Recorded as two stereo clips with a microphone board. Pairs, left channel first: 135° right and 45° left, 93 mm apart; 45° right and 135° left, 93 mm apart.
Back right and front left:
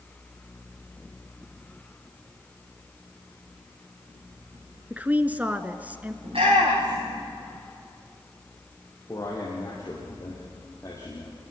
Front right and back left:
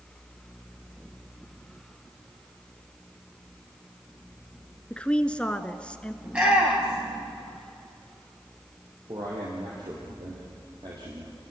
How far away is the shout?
About 9.5 m.